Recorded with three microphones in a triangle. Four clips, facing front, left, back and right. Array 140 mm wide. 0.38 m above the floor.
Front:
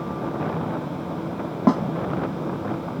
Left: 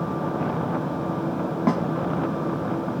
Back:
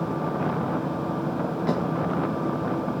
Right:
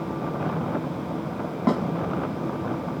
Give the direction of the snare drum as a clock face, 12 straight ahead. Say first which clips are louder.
Even, front 8 dB; 12 o'clock.